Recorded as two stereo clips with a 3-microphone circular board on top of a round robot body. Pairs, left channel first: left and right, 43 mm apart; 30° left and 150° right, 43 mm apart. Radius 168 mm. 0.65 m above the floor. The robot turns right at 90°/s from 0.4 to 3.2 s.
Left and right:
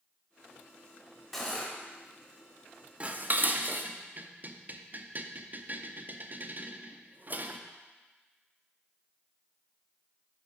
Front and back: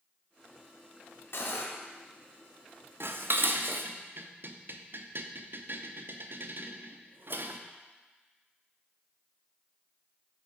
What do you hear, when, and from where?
1.3 s cutlery clinking: straight ahead, 0.9 m; by 1.7 s 30° left, 0.9 m
3.0 s dishes clattering: 150° right, 0.6 m; by 7.6 s 130° right, 0.6 m